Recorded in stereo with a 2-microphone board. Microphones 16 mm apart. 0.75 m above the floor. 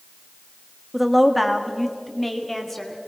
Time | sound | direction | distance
0.9 | a woman speaking | 10° right (ahead or behind) | 1.4 m